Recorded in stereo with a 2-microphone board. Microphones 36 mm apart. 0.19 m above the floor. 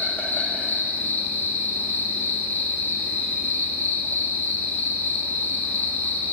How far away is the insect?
About 1.2 m.